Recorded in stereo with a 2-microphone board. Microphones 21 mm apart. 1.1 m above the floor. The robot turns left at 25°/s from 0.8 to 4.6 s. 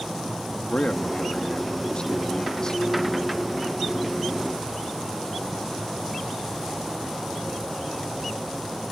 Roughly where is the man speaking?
Left.